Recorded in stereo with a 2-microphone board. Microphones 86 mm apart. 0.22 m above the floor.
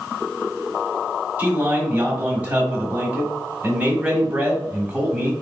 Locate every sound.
1.4 s a man speaking: 15° right (ahead or behind), 1.3 m